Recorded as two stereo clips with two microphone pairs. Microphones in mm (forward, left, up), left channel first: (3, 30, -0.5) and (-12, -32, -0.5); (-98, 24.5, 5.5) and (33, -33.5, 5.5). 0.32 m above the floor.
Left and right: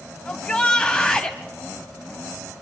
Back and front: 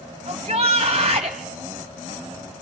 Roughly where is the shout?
Ahead.